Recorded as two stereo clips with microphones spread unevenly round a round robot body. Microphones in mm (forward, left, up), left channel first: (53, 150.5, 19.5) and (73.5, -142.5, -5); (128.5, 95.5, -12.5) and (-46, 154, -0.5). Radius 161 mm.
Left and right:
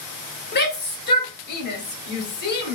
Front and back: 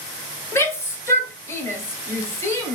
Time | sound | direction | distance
0.5 | a shout | 50° left | 1.6 m